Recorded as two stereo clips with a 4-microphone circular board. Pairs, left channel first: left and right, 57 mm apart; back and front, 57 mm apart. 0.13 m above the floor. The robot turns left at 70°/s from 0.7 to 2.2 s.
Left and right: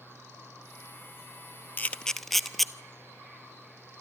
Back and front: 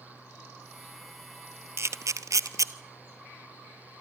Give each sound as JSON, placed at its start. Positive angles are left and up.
{"t": 1.8, "sound": "a camera shutter", "azimuth_deg": 35, "distance_m": 0.7}